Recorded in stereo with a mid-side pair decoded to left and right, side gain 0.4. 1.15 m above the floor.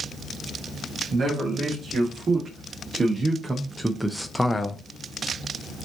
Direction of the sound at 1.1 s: 50° right.